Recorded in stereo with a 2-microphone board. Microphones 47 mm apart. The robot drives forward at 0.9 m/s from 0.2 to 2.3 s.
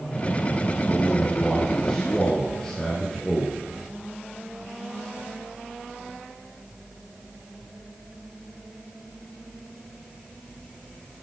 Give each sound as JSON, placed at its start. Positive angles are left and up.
{"t": 0.9, "sound": "a man speaking", "side_deg": 15, "distance_m": 2.5}